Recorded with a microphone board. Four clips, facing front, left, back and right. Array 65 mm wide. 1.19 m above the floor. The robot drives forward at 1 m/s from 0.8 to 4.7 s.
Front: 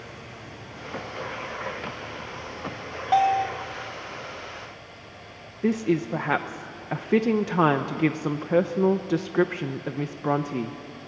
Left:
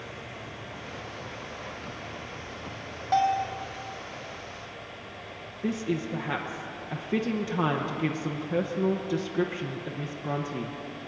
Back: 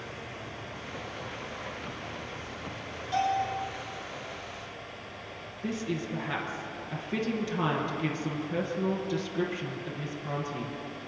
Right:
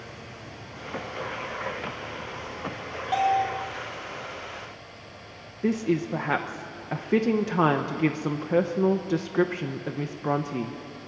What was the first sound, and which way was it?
A bell, 5° left.